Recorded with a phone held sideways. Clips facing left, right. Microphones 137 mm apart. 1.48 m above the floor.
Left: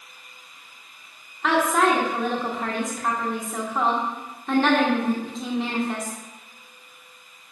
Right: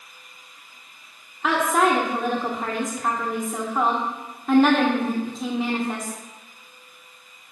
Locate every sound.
1.4 s a woman speaking: 5° right (ahead or behind), 1.3 m